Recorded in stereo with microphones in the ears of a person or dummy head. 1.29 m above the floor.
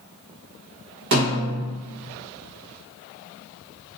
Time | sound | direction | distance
1.1 | a snare drum | 65° right (ahead or behind) | 1.0 m